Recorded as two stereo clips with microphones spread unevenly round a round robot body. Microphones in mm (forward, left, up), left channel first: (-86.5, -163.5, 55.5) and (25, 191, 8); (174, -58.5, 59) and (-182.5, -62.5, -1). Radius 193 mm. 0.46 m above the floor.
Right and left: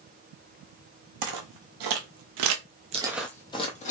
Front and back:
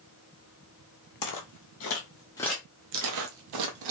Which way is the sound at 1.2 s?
35° left.